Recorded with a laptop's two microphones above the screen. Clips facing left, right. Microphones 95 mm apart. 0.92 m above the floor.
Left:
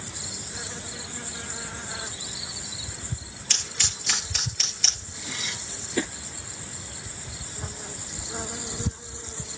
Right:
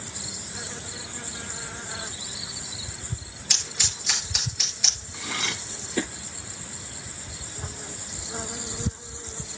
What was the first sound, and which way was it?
Scissors, 10° right (ahead or behind).